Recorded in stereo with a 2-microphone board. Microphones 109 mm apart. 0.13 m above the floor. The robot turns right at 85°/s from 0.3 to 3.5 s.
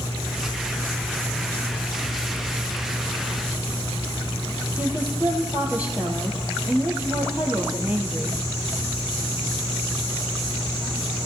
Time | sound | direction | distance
4.8 | a woman speaking | 15° right (ahead or behind) | 4 m